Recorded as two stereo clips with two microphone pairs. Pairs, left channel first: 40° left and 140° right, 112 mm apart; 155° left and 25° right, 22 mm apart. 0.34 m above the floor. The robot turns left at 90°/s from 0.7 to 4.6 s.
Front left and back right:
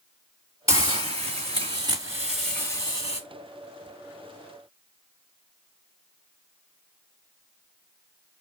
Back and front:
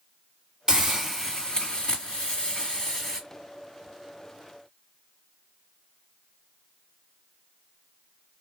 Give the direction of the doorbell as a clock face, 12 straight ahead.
No doorbell in this recording.